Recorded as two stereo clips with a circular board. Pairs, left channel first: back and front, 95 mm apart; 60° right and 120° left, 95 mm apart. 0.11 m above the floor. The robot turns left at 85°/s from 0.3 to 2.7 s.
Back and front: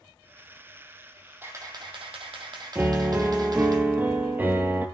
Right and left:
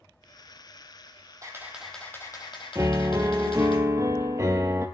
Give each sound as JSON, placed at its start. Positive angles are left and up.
{"t": 1.4, "sound": "a camera shutter", "azimuth_deg": 70, "distance_m": 1.5}
{"t": 2.8, "sound": "a piano", "azimuth_deg": 65, "distance_m": 0.7}